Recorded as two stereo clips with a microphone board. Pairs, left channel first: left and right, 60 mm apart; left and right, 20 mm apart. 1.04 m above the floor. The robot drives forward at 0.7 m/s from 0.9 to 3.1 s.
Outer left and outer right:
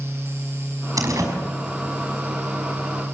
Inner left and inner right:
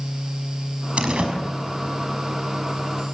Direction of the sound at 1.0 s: 70° right (ahead or behind).